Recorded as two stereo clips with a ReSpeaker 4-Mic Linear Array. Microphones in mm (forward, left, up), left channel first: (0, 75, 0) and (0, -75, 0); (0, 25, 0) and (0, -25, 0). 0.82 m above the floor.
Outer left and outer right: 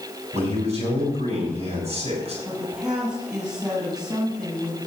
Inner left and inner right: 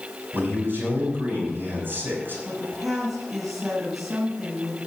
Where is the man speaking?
45° right (ahead or behind), 6 m.